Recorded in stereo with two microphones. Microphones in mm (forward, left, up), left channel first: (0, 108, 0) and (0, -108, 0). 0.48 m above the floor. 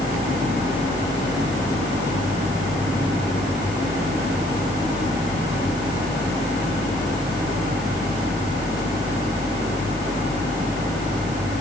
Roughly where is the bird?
No bird in this recording.